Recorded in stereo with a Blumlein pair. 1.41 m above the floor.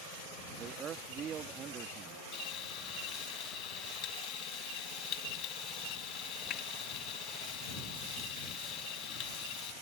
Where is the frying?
35° left.